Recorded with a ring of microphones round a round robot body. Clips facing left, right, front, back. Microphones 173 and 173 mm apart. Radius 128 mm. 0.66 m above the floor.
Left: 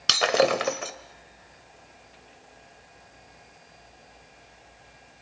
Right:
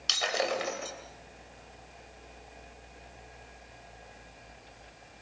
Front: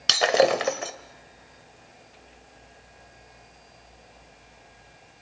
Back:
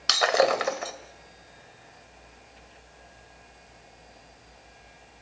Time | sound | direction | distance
0.1 | breaking glass | 65° left | 2 m